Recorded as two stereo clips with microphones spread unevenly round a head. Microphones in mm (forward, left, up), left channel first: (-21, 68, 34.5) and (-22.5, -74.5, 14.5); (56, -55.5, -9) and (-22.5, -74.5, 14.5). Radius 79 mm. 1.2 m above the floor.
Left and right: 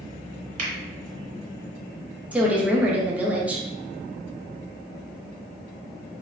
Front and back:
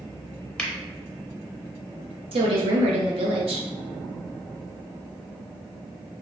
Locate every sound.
0.6 s a finger snap: 60° right, 0.9 m
2.3 s a woman speaking: 170° right, 0.7 m